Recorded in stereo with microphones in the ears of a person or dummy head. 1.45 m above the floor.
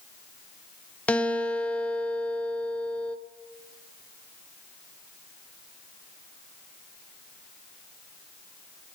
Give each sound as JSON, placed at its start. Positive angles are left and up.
{"t": 1.1, "sound": "a guitar", "side_deg": 5, "distance_m": 0.9}